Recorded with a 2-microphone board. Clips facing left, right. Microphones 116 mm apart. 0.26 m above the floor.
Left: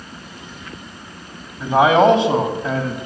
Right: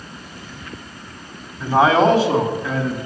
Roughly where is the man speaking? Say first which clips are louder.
Left 2 dB; centre.